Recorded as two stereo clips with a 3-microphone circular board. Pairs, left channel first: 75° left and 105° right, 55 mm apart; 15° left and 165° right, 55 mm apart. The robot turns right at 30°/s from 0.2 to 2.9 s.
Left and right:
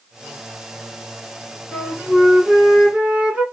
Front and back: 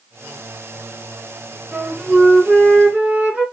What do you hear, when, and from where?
1.7 s a flute: straight behind, 1.1 m; by 3.4 s 145° right, 1.1 m